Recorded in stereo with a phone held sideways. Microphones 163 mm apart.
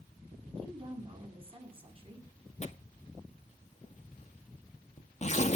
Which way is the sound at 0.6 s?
35° right (ahead or behind).